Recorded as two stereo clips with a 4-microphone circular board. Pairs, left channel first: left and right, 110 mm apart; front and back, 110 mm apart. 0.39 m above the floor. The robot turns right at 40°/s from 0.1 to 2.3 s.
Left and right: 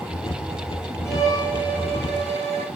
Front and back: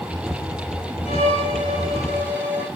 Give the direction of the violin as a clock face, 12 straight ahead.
11 o'clock.